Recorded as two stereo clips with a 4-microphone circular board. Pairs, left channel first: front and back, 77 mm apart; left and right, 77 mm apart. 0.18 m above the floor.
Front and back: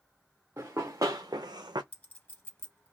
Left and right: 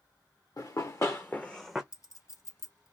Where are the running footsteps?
125° left, 1.0 m; by 1.8 s 175° right, 0.6 m.